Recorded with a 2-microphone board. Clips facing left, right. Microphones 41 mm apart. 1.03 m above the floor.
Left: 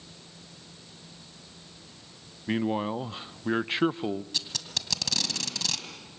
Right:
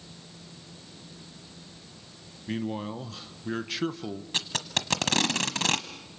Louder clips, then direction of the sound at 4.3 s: Right 5 dB; 45° right (ahead or behind).